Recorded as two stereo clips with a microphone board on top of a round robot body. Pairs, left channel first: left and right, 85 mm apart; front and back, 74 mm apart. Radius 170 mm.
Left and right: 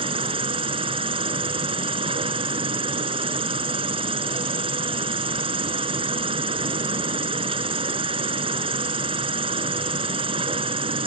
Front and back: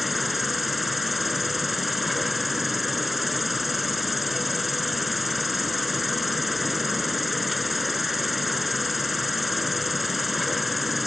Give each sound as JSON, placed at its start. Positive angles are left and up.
{"t": 0.0, "sound": "an insect", "azimuth_deg": -90}